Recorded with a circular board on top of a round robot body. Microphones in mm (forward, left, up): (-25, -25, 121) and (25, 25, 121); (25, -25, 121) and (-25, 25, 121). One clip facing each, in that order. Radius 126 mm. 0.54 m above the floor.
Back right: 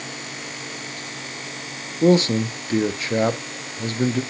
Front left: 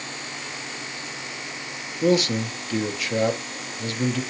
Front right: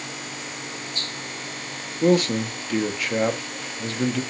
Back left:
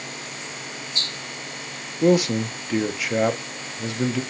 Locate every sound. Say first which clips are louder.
2.0 s a man speaking: back right 4 dB, back left 1 dB; 150° right, 0.7 m